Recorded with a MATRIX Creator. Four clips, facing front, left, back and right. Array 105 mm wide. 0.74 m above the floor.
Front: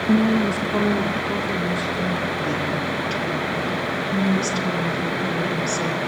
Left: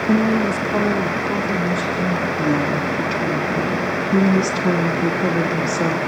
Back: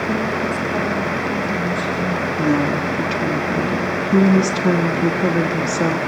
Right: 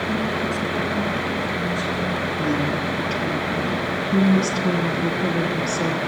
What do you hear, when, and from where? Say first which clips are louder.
0.1 s a woman speaking: left 9 dB, front 6 dB; 75° left, 1.0 m; by 2.3 s 60° left, 3 m
2.4 s a woman speaking: left 3 dB, back 6 dB; 150° left, 1.2 m